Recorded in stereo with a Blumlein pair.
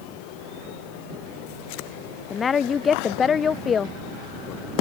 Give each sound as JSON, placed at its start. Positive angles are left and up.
{"t": 2.3, "sound": "a woman speaking", "azimuth_deg": 20}